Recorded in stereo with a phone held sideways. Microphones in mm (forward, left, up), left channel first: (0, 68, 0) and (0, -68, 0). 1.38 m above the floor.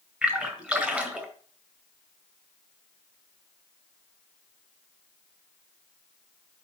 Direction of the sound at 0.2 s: 10° right (ahead or behind).